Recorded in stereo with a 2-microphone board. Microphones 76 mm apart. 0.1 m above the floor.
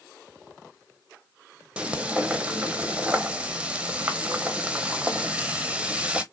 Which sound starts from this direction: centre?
Frying, at 1.8 s.